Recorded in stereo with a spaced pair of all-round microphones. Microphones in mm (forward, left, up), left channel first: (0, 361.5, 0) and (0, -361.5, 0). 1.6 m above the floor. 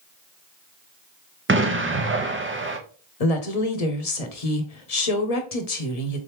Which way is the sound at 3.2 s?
55° left (ahead or behind).